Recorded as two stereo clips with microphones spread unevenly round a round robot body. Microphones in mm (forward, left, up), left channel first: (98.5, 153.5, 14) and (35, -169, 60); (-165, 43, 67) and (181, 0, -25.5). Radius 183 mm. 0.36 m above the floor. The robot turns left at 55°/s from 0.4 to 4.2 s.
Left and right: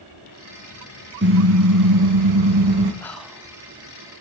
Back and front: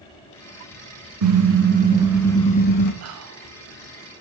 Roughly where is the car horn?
Ahead right.